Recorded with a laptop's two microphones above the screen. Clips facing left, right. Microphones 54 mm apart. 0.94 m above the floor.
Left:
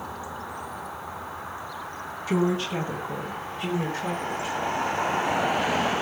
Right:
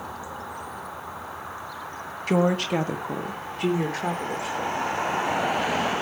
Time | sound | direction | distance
2.3 | a woman speaking | 60° right (ahead or behind) | 1.3 m